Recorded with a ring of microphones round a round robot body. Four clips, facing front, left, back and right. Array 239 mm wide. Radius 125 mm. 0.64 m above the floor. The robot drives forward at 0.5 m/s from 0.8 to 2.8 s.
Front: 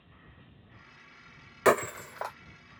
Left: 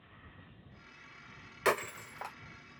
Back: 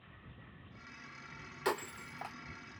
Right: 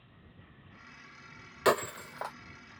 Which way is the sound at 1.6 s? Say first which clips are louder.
Right 4 dB, front 12 dB; 20° right.